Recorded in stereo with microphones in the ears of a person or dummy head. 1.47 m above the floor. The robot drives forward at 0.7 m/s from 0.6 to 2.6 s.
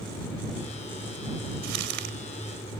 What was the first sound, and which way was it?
Crumpling, 65° right (ahead or behind).